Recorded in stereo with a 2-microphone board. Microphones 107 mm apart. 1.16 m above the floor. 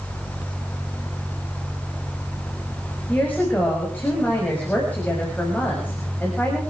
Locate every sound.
3.1 s a woman speaking: 20° left (ahead or behind), 6.5 m